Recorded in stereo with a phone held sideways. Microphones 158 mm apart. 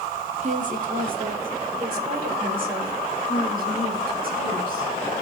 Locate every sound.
0.4 s a woman speaking: 50° right (ahead or behind), 2.5 m; by 4.9 s 70° right (ahead or behind), 6 m